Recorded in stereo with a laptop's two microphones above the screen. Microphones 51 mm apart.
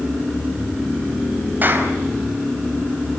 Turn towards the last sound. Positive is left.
turn(degrees=-35)  # may be behind; listen again after turning